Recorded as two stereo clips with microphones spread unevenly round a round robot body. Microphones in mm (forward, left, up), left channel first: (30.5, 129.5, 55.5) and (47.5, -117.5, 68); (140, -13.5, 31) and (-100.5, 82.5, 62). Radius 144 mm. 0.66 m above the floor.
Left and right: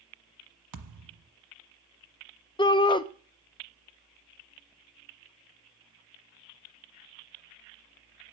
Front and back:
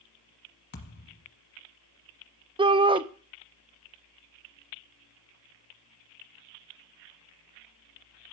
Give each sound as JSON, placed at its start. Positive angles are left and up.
{"t": 0.7, "sound": "a thud", "azimuth_deg": -80, "distance_m": 1.2}
{"t": 2.6, "sound": "a shout", "azimuth_deg": 100, "distance_m": 0.6}